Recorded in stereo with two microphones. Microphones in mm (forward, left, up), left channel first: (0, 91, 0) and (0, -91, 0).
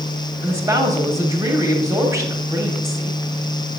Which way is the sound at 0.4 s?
15° right (ahead or behind).